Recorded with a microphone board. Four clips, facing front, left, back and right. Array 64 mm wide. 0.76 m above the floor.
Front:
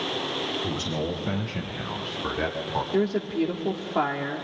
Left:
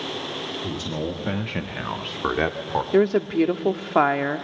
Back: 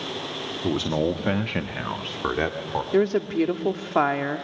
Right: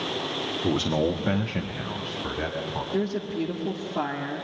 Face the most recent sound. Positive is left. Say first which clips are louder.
# left 10 dB, back 4 dB
turn(degrees=115)